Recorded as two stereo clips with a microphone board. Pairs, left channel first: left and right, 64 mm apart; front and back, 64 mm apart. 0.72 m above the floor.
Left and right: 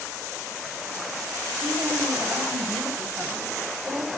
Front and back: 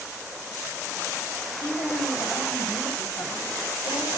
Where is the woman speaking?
30° right, 4 m.